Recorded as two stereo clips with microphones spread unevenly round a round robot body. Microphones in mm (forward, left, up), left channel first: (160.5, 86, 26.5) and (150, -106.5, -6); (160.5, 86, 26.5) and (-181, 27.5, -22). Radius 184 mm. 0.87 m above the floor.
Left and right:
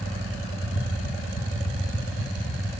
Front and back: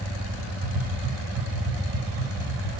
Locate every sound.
0.6 s tapping: 165° left, 4.5 m